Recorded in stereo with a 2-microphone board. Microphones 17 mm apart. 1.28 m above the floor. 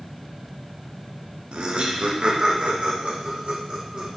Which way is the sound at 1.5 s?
85° right.